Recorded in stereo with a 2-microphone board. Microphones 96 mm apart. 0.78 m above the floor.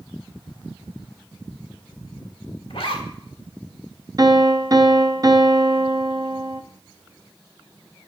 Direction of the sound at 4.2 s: 40° right (ahead or behind).